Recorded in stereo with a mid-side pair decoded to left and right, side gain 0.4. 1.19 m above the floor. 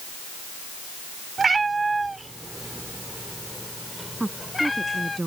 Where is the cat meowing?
40° right; by 5.2 s 25° left.